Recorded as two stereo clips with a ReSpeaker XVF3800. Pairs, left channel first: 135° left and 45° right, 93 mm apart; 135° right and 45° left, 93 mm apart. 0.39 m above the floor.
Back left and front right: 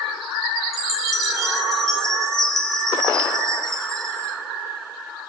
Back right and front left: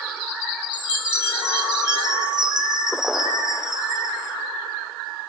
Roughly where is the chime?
Ahead.